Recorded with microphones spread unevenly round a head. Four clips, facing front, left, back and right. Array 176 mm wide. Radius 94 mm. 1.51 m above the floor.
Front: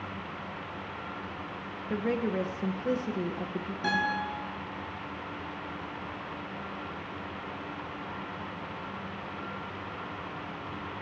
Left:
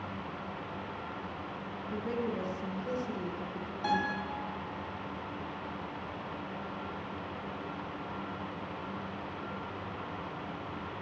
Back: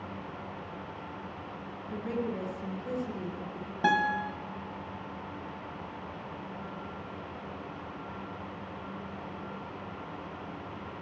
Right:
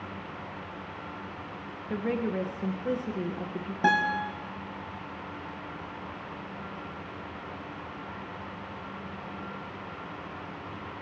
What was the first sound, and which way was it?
A woman speaking, 40° right.